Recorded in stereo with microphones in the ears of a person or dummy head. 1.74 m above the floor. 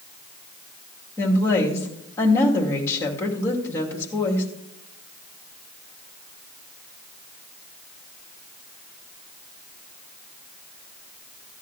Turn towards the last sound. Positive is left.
turn(degrees=15)  # may be behind; listen again after turning